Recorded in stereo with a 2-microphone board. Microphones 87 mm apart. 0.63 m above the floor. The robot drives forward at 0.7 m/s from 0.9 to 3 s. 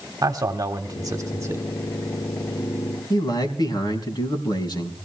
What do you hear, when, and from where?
0.2 s a man speaking: 45° right (ahead or behind), 1.4 m; by 1.6 s 35° right (ahead or behind), 1.7 m
3.1 s a man speaking: 55° left (ahead or behind), 4.5 m